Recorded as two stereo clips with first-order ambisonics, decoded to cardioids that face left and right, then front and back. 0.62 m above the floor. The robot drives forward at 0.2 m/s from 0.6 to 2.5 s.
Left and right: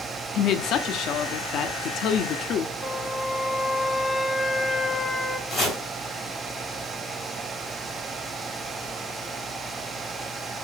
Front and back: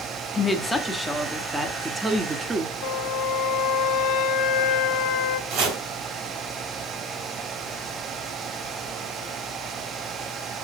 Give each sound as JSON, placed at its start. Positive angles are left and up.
{"t": 0.3, "sound": "a woman speaking", "azimuth_deg": 80, "distance_m": 0.8}
{"t": 2.8, "sound": "a flute", "azimuth_deg": 5, "distance_m": 0.6}
{"t": 5.5, "sound": "chopping", "azimuth_deg": 175, "distance_m": 3.0}